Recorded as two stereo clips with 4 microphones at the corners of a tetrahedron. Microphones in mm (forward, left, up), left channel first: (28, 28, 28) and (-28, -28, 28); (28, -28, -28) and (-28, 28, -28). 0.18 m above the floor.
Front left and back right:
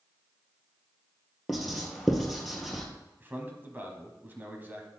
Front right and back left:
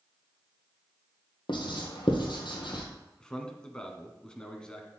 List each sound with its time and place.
1.5 s writing: 50° right, 1.6 m
3.2 s a man speaking: 110° right, 1.1 m